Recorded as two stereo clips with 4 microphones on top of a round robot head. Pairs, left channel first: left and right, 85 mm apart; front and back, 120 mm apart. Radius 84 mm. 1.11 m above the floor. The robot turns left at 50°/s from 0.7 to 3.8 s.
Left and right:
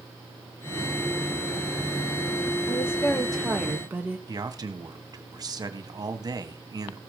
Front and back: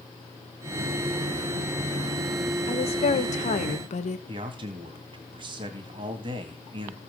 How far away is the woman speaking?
About 1.6 m.